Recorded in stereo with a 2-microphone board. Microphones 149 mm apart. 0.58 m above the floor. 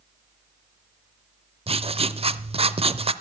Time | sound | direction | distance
1.7 | writing | 45° right (ahead or behind) | 0.6 m